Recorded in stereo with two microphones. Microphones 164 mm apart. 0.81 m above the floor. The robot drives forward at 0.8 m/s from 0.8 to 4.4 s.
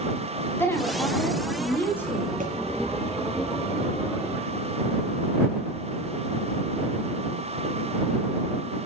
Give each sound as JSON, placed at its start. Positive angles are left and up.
{"t": 0.6, "sound": "a woman speaking", "side_deg": 15, "distance_m": 7.5}
{"t": 2.4, "sound": "a thud", "side_deg": -55, "distance_m": 5.5}